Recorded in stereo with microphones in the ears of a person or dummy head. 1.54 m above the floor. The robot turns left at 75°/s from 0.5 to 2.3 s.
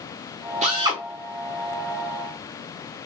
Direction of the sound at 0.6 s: 135° right.